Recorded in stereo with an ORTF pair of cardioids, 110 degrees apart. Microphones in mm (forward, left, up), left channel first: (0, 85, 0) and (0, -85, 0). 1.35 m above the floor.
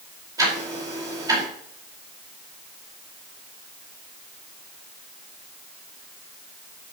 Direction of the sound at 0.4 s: 20° right.